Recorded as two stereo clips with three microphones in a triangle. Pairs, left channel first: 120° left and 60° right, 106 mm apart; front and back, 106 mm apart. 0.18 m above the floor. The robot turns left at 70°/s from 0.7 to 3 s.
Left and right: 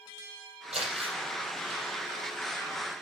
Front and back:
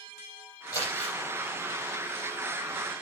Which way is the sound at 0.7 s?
55° right.